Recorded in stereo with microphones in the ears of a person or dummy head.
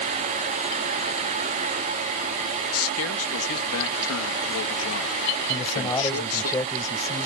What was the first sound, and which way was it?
A man speaking, 75° left (ahead or behind).